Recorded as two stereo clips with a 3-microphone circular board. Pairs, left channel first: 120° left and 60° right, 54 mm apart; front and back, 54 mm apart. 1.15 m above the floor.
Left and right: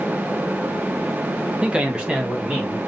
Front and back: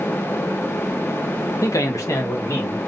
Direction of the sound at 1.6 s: 5° left.